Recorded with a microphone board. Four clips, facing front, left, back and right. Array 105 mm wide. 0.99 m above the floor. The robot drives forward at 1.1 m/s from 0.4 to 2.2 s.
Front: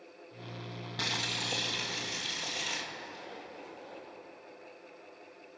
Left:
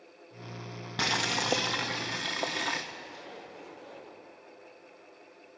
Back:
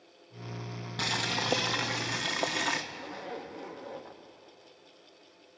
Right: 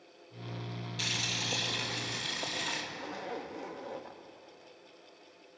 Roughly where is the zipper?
Behind right.